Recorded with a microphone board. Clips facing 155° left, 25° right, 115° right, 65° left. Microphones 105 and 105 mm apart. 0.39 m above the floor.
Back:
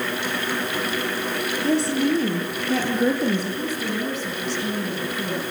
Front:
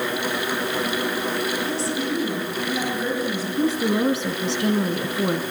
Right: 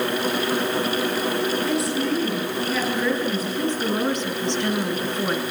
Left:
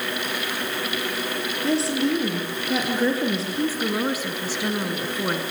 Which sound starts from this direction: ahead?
A woman speaking, at 3.6 s.